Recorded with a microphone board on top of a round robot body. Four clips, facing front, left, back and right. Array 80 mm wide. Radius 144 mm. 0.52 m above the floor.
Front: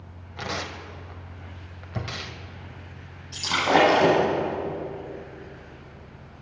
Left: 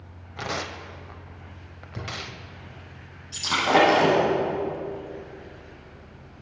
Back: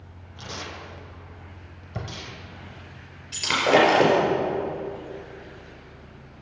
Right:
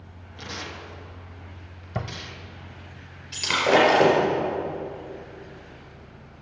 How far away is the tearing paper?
About 0.7 m.